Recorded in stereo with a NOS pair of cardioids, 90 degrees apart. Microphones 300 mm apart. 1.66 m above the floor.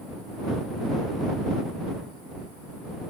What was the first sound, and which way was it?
Only background noise.